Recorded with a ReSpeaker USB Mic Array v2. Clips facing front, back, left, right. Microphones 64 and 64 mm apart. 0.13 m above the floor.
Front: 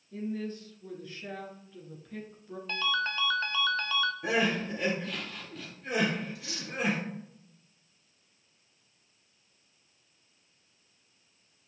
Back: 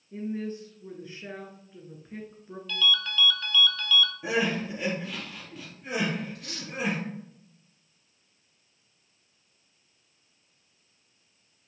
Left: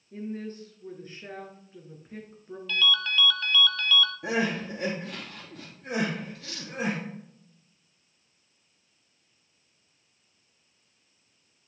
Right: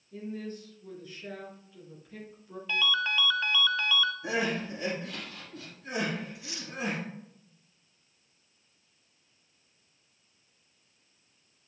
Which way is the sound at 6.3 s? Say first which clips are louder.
Back 1 dB, left 1 dB; 160° right.